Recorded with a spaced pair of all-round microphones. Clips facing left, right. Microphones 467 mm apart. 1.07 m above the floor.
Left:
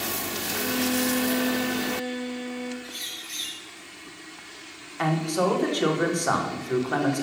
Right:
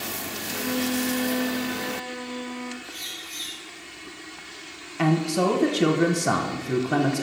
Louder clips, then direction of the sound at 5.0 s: Right 3 dB; 45° right (ahead or behind).